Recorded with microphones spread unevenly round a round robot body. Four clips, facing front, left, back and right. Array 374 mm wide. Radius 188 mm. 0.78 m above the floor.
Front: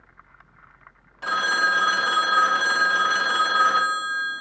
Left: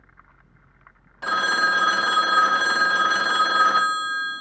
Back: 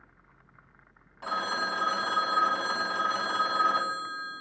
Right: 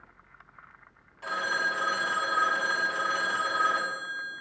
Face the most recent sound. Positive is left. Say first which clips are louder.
# left 8 dB, front 8 dB
turn(degrees=80)